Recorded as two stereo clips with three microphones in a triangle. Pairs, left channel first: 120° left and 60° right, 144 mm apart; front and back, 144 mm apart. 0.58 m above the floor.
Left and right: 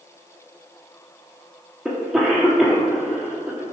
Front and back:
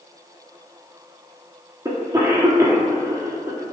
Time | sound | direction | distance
1.9 | a cough | 145° right | 1.0 m